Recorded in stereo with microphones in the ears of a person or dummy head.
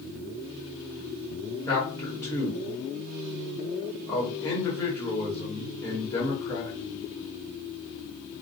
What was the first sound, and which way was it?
A man speaking, 10° left (ahead or behind).